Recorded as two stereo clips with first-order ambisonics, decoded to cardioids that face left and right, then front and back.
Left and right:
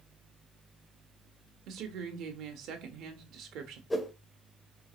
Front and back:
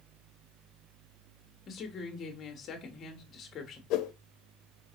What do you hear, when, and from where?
1.7 s a woman speaking: 55° right, 1.0 m
3.9 s a whoosh: 10° left, 0.5 m